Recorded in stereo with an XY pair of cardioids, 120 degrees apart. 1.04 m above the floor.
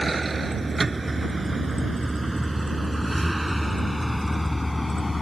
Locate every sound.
0.0 s a vehicle: 20° right; by 5.2 s 15° left